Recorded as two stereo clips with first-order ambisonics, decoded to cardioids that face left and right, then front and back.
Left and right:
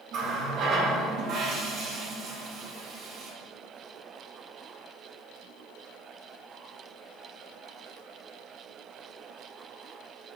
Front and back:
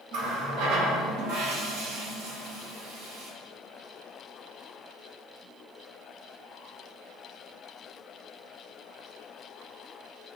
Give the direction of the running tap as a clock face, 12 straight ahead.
5 o'clock.